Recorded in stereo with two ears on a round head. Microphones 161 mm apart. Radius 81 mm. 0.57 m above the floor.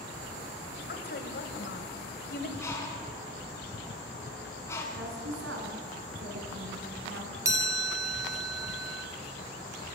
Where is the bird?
15° left (ahead or behind), 4.5 m.